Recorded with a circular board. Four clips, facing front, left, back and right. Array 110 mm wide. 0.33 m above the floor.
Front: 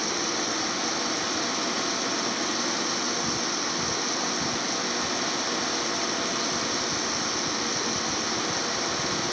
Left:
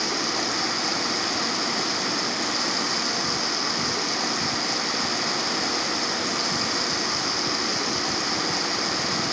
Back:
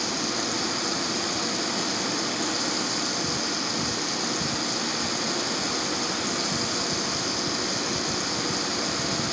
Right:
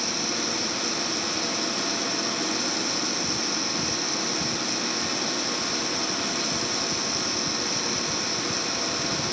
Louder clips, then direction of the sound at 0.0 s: Left 3 dB, even; 80° left.